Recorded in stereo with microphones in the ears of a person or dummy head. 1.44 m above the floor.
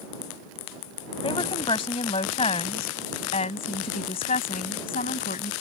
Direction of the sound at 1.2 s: 25° left (ahead or behind).